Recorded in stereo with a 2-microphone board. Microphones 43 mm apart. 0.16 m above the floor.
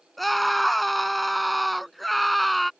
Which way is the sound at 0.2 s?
Centre (ahead or behind).